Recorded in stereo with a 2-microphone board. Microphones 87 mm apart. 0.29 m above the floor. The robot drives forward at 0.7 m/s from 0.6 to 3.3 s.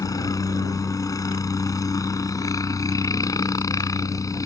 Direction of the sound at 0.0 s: 45° left (ahead or behind).